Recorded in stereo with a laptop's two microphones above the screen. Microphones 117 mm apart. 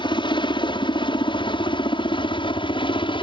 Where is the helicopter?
45° left (ahead or behind).